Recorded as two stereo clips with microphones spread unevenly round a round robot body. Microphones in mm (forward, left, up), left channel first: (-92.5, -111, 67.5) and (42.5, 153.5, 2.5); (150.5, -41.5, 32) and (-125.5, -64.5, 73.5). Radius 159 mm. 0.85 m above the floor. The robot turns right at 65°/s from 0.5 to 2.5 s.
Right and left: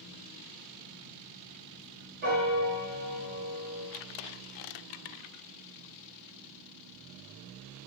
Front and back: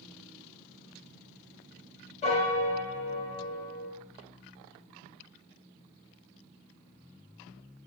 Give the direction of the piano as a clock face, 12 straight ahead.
10 o'clock.